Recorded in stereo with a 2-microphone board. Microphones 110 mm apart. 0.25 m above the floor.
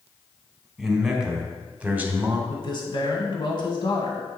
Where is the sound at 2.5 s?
45° left (ahead or behind), 1.5 m.